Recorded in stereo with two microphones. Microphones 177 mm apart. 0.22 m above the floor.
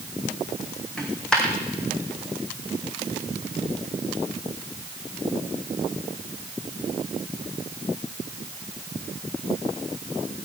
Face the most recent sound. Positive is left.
turn(degrees=5)  # may be behind; listen again after turning